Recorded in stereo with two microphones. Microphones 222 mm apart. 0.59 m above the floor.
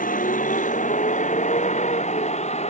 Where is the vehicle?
40° left (ahead or behind); by 2.7 s 30° left (ahead or behind).